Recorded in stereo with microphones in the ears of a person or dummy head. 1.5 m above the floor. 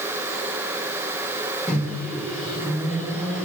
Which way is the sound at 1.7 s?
5° left (ahead or behind).